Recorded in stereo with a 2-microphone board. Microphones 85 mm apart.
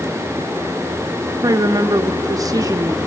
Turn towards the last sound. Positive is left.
turn(degrees=-45)  # may be behind; listen again after turning